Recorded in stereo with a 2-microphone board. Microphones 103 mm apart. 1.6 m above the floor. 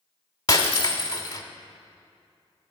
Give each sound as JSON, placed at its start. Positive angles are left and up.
{"t": 0.5, "sound": "breaking glass", "side_deg": 35, "distance_m": 1.5}